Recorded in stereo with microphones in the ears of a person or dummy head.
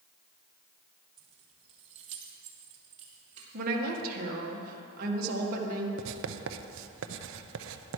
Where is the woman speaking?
50° right (ahead or behind), 1.6 m.